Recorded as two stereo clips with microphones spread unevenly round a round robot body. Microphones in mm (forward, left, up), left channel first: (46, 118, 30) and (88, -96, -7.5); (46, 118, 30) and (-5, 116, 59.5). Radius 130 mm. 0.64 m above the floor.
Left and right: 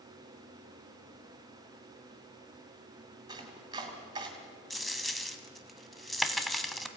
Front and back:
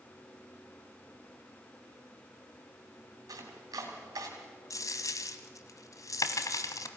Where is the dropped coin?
15° left, 1.7 m.